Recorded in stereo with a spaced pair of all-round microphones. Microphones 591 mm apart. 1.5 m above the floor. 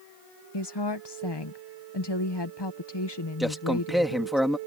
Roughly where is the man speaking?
Centre.